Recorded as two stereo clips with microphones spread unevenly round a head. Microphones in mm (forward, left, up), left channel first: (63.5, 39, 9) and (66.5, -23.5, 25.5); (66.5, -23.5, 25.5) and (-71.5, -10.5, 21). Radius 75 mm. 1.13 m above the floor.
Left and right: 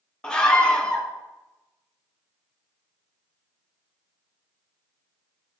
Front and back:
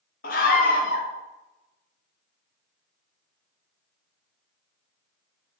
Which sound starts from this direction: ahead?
A scream, at 0.2 s.